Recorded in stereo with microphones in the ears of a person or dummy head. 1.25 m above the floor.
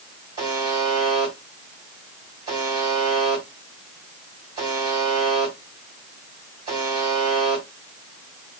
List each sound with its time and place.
0.4 s a buzzer: 30° right (ahead or behind), 1.9 m